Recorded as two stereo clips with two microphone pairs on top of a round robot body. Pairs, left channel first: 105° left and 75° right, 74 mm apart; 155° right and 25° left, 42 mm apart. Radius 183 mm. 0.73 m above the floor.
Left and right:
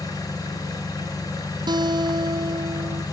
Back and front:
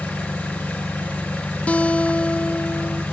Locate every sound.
0.0 s an engine running: 140° left, 5 m
1.7 s a guitar: 95° right, 0.6 m